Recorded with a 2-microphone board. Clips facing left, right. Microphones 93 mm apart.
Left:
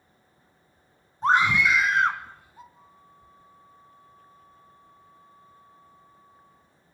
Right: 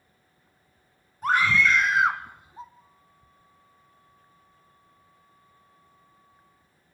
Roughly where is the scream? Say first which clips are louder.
Left 1 dB; left.